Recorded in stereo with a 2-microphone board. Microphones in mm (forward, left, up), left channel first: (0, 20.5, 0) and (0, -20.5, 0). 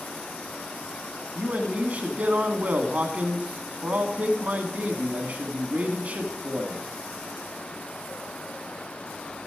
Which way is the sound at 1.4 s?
35° right (ahead or behind).